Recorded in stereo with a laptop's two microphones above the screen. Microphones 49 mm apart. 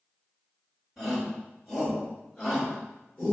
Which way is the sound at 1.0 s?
5° right (ahead or behind).